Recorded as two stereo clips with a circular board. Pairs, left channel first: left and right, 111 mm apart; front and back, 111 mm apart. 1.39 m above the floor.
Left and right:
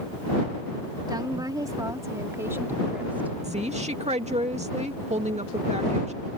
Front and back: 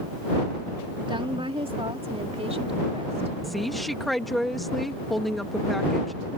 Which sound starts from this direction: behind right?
A woman speaking, at 1.1 s.